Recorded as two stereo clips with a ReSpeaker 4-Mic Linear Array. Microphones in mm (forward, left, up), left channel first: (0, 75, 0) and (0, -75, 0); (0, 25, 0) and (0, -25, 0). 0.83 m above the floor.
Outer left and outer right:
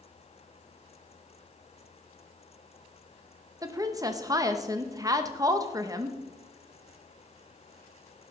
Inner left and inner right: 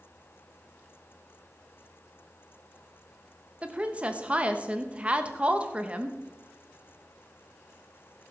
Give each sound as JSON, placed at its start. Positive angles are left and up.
{"t": 3.6, "sound": "a woman speaking", "side_deg": -20, "distance_m": 0.9}